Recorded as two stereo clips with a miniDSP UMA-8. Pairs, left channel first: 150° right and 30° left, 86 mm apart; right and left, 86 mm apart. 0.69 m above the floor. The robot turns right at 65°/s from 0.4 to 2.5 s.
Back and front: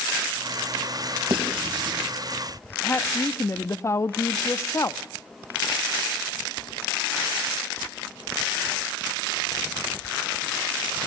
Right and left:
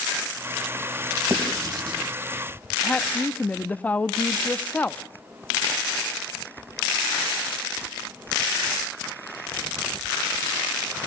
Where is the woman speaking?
145° right, 0.5 m.